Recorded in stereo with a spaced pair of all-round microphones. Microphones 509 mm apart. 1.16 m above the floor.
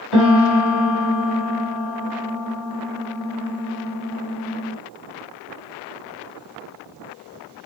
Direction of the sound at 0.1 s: 50° left (ahead or behind).